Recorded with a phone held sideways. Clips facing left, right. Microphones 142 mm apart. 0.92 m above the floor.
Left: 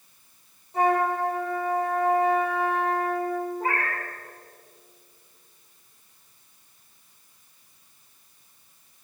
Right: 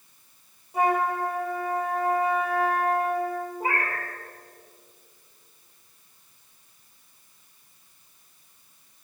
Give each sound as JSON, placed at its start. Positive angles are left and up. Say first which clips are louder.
{"t": 0.7, "sound": "a flute", "louder": "left 1 dB", "side_deg": -10, "distance_m": 3.0}
{"t": 3.6, "sound": "a cat meowing", "louder": "even", "side_deg": -10, "distance_m": 1.7}